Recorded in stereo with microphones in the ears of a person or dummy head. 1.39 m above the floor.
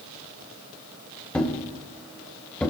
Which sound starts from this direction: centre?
A thud, at 1.3 s.